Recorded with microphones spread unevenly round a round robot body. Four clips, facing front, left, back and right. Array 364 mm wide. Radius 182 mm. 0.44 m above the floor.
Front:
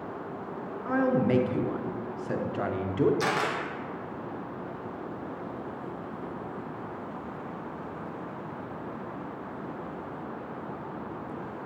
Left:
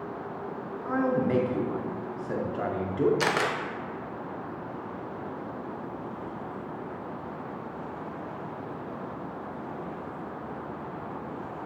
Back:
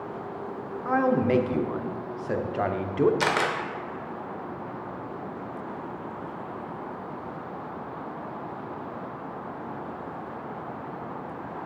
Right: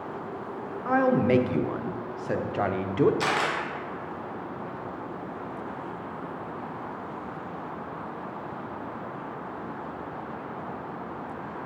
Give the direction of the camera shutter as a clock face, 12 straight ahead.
7 o'clock.